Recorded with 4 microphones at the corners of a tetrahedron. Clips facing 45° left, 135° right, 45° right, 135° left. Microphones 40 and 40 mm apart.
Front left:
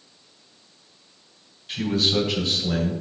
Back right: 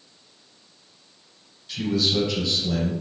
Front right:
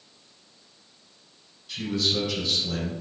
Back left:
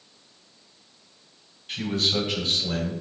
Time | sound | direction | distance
1.7 | a man speaking | 85° left | 3.5 m